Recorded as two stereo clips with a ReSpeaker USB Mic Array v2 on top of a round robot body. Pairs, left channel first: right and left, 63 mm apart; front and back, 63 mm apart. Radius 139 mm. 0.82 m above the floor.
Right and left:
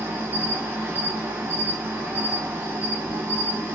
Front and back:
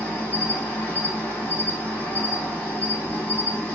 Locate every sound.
0.0 s an insect: 50° left, 1.5 m